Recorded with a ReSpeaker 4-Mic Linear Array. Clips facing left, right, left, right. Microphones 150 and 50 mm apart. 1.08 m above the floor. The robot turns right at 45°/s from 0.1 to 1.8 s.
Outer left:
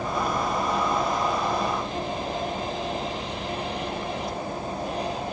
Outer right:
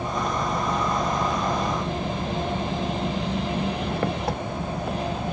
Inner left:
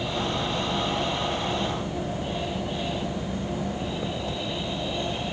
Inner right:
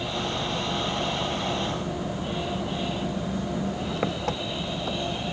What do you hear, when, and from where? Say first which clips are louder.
0.0 s an engine running: even, inner left 1 dB; 160° right; by 5.3 s 80° right